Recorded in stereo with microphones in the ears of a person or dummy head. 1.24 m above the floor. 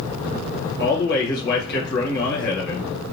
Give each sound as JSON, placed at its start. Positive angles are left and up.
{"t": 0.8, "sound": "a man speaking", "side_deg": 60, "distance_m": 1.3}